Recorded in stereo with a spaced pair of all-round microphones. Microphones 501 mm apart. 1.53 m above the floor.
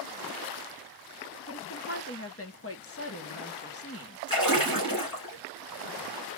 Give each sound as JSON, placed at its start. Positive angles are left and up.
{"t": 1.5, "sound": "a woman speaking", "side_deg": 25, "distance_m": 1.0}
{"t": 4.3, "sound": "a splash", "side_deg": 40, "distance_m": 3.0}